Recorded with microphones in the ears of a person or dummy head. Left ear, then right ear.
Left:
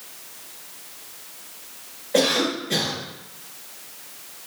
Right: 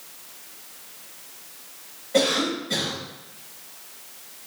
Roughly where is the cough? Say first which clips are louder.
Left 1 dB; left.